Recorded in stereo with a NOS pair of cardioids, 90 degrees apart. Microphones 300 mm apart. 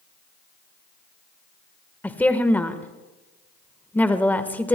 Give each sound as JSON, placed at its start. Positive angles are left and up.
{"t": 2.0, "sound": "a woman speaking", "azimuth_deg": 5, "distance_m": 1.4}